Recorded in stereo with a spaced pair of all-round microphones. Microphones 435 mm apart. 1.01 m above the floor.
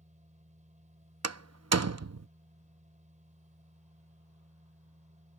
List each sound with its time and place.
0.0 s a machine running: 15° right (ahead or behind)
1.2 s a door slam: 40° right (ahead or behind)